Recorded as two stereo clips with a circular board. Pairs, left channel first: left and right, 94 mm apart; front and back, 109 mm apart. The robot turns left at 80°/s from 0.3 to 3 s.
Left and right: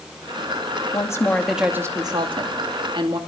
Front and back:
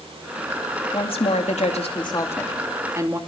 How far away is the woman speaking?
About 2.5 m.